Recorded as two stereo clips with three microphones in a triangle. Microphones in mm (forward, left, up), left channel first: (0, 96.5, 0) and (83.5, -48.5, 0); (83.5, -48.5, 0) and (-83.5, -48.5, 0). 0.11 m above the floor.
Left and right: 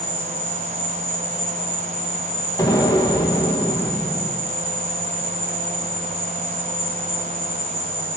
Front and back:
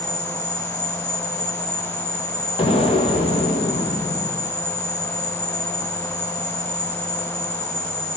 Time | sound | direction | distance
0.0 | an insect | 10° left | 6.5 m
2.6 | an explosion | 55° left | 2 m